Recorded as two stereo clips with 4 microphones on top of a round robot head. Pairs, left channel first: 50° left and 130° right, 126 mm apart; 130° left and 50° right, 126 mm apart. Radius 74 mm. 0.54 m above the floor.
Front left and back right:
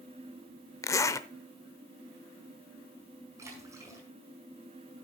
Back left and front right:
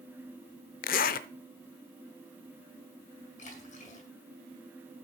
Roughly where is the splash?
Behind.